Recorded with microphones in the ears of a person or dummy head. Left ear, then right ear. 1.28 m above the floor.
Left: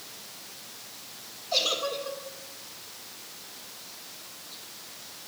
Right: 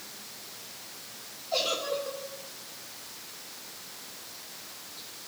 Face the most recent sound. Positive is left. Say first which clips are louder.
# left 2 dB
turn(degrees=15)  # may be behind; listen again after turning